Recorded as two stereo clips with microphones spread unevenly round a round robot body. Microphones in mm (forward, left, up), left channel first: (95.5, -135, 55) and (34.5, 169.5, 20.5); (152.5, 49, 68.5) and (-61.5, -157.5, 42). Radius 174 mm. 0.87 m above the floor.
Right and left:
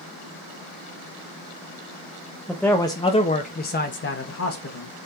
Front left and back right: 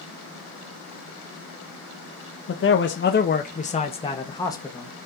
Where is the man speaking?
15° left, 1.2 m; by 5.0 s 40° right, 1.8 m.